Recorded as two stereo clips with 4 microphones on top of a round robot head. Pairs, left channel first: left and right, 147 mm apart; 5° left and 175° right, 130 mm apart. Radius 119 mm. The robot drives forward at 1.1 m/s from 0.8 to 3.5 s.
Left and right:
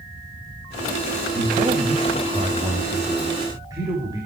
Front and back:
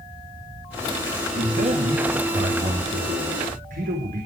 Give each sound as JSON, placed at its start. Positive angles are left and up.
{"t": 1.4, "sound": "a man speaking", "azimuth_deg": -140, "distance_m": 2.5}